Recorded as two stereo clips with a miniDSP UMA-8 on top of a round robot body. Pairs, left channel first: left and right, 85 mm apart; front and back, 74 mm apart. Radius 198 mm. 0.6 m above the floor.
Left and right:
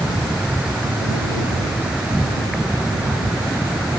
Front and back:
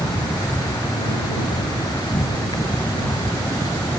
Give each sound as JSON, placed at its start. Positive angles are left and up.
{"t": 0.0, "sound": "an insect", "azimuth_deg": -10}